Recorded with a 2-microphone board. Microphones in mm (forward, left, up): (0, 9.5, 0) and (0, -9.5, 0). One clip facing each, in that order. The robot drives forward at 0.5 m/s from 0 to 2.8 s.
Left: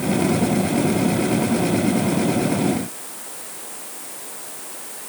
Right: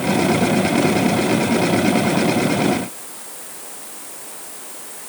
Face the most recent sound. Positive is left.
No sound to turn to.